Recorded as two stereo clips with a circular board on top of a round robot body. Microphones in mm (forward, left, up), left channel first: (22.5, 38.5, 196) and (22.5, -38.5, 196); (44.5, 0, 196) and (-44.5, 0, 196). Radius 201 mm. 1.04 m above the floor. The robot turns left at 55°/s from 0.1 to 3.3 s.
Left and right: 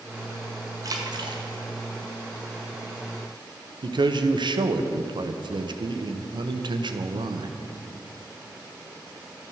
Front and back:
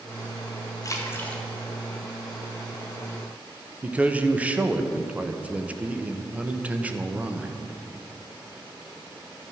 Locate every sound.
0.8 s a splash: 50° right, 2 m; by 1.4 s 80° right, 2 m
3.8 s a man speaking: 105° right, 1.2 m